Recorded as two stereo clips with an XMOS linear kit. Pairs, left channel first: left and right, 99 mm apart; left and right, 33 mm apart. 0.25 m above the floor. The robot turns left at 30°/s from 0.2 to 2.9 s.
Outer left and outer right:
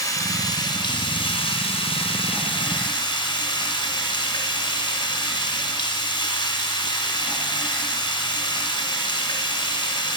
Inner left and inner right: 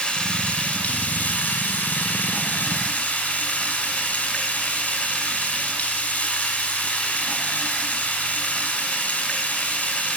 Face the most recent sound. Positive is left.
turn(degrees=55)